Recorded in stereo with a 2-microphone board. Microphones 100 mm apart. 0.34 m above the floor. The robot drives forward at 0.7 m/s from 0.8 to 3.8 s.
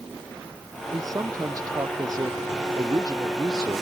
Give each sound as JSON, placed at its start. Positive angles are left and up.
{"t": 0.9, "sound": "a man speaking", "side_deg": -35}